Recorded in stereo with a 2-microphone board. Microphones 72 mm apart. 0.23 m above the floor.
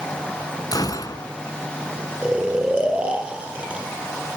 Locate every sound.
0.7 s a gunshot: 60° left (ahead or behind), 1.7 m
2.2 s snoring: 15° right (ahead or behind), 3.5 m